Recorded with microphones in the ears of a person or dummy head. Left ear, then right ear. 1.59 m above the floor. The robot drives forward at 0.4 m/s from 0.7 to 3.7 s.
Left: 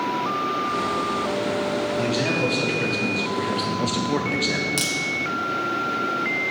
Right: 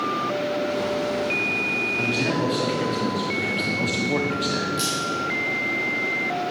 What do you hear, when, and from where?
2.0 s a man speaking: 5° left (ahead or behind), 1.5 m; by 4.7 s 10° left (ahead or behind), 0.8 m
4.8 s a crack: 30° left (ahead or behind), 0.9 m